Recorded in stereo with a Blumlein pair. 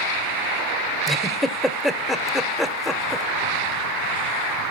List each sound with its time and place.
1.1 s a giggle: 5° left, 1.2 m